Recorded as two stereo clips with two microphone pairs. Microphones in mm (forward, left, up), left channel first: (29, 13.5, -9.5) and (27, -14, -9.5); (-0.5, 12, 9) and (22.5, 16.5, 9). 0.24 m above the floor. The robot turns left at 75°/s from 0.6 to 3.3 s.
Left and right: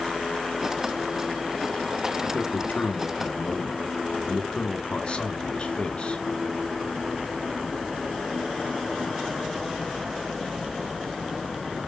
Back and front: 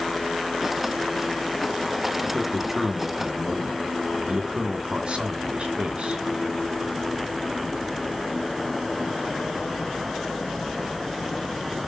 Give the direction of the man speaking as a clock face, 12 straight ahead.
8 o'clock.